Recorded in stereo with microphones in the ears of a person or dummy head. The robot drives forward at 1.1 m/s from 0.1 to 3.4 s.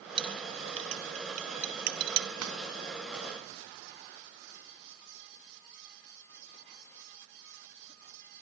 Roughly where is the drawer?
Right.